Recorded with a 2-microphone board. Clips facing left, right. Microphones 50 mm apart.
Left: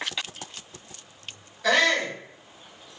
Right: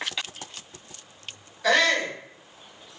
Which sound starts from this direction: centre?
A shout, at 1.6 s.